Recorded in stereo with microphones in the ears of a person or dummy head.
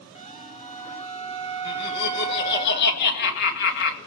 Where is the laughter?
60° left (ahead or behind), 2 m.